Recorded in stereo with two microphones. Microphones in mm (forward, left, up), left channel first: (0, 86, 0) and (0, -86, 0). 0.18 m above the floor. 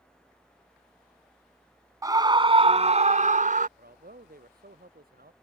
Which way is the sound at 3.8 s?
60° right (ahead or behind).